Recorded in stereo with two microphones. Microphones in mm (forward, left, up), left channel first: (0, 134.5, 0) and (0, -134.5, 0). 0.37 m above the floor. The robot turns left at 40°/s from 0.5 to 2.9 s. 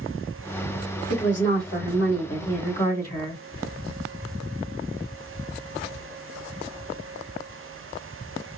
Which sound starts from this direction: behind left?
A woman speaking, at 1.1 s.